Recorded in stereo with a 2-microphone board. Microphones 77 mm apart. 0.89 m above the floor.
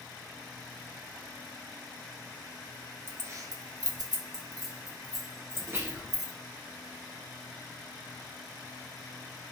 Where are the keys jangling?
30° right (ahead or behind), 0.5 m.